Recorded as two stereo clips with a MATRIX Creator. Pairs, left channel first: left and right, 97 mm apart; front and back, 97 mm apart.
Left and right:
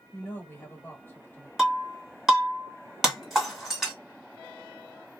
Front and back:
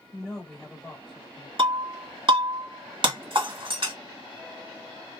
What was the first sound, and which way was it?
A woman speaking, 75° left.